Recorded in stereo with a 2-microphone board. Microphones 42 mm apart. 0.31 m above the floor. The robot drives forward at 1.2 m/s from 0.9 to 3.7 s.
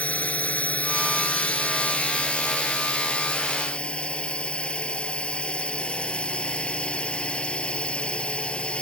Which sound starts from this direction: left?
A drone, at 0.0 s.